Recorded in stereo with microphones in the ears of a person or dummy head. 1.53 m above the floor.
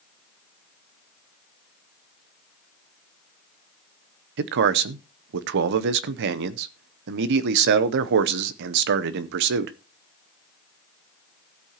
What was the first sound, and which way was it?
A man speaking, 65° right (ahead or behind).